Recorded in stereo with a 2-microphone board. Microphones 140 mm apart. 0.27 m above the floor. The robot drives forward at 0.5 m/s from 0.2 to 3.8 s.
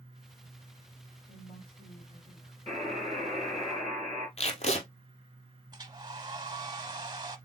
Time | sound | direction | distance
1.3 | a woman speaking | 35° left (ahead or behind) | 1.8 m
2.7 | a buzzer | 10° left (ahead or behind) | 3 m
4.4 | tape being pulled | 50° left (ahead or behind) | 1.1 m
5.7 | a hair dryer | 30° right (ahead or behind) | 0.6 m